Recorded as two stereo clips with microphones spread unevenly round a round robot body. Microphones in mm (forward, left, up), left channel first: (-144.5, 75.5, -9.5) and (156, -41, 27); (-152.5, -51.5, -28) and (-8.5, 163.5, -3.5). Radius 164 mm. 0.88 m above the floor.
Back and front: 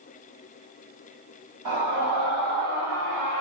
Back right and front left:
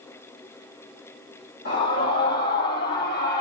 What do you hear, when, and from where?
1.6 s a scream: 60° right, 6.5 m